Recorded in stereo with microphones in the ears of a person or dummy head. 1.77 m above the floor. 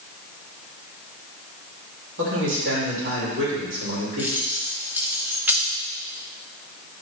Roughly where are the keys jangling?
Centre.